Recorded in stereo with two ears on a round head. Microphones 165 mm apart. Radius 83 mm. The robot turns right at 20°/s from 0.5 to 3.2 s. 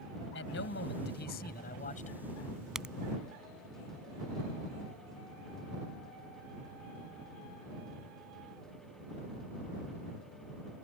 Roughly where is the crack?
Centre.